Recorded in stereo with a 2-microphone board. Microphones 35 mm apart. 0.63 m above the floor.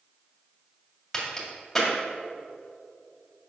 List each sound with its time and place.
1.1 s a crack: 10° left (ahead or behind), 2.5 m